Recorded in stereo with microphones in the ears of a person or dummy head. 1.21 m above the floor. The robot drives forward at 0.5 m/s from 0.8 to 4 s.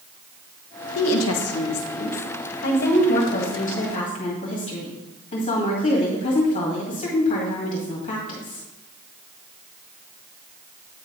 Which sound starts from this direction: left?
A woman speaking, at 0.9 s.